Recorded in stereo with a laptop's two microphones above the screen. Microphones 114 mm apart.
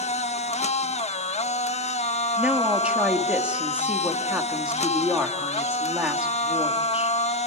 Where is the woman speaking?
10° right (ahead or behind), 2 m.